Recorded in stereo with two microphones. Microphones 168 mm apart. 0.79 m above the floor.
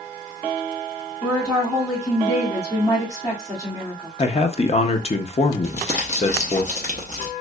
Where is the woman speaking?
30° left (ahead or behind), 2 m.